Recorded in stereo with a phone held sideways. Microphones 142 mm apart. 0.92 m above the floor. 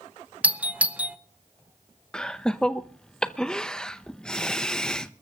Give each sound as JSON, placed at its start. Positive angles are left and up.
{"t": 0.4, "sound": "a doorbell", "side_deg": -10, "distance_m": 0.7}
{"t": 2.1, "sound": "laughter", "side_deg": 5, "distance_m": 0.7}